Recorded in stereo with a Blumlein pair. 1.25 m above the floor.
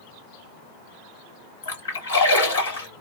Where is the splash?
65° left, 1.3 m.